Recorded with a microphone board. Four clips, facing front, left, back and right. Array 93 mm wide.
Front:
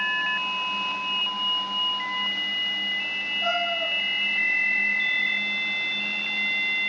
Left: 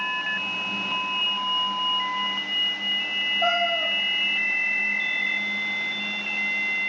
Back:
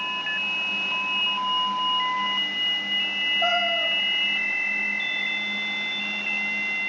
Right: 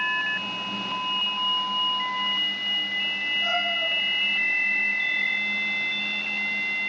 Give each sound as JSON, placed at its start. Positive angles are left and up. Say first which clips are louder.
{"t": 3.4, "sound": "a cat meowing", "louder": "left 6 dB, back 2 dB", "azimuth_deg": 125, "distance_m": 7.5}